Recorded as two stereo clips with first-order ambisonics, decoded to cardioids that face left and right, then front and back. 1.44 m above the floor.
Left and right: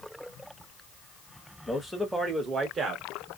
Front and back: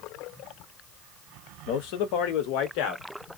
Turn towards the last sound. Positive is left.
turn(degrees=-30)